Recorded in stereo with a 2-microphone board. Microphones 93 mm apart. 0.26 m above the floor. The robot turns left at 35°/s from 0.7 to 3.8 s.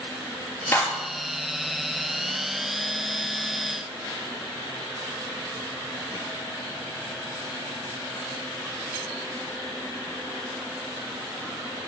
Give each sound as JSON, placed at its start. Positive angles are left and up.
{"t": 0.7, "sound": "a clap", "side_deg": 25, "distance_m": 5.5}